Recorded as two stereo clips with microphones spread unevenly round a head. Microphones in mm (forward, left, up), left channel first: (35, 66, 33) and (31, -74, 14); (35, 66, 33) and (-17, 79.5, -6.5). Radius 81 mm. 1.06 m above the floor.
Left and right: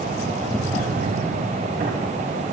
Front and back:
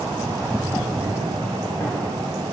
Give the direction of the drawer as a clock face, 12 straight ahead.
3 o'clock.